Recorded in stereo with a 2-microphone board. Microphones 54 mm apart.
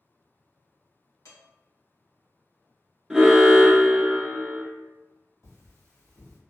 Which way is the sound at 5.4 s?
85° left.